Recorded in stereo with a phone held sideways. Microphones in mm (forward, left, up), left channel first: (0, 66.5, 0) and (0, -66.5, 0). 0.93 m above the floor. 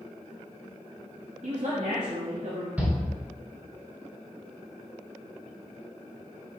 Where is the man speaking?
55° right (ahead or behind), 1.4 m; by 2.7 s 65° right (ahead or behind), 1.9 m.